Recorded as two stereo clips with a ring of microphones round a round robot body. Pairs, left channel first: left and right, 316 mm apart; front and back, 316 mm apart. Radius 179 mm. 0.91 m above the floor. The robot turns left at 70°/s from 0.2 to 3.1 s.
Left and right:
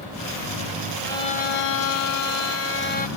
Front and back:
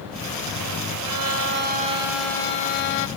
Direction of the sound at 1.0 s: 170° left.